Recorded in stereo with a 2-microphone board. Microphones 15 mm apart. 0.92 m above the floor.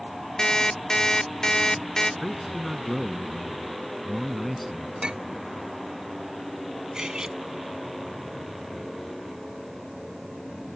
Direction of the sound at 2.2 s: 5° left (ahead or behind).